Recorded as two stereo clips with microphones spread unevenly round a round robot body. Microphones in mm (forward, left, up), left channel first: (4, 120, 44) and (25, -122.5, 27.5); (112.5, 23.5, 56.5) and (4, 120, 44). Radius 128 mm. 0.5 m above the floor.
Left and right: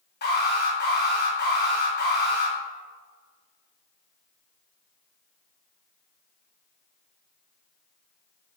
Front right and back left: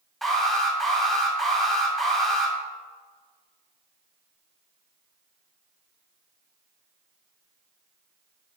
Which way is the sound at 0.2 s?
50° left.